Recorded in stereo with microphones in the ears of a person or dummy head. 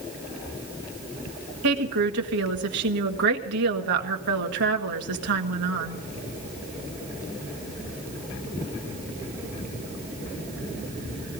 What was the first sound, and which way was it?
A woman speaking, 70° right (ahead or behind).